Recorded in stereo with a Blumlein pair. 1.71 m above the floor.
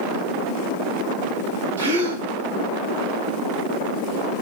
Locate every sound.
1.8 s a gasp: 70° right, 0.7 m